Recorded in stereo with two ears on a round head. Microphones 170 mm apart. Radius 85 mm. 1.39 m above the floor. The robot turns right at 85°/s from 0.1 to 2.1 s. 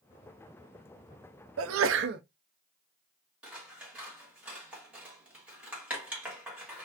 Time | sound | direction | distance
1.6 | a sneeze | 100° right | 0.5 m
3.4 | scissors | 5° right (ahead or behind) | 1.6 m